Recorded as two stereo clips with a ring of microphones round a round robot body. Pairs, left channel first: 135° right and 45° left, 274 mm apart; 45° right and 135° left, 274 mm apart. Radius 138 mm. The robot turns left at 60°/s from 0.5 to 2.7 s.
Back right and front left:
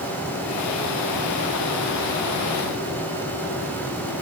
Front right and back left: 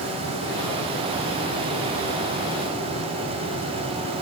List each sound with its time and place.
Only background noise.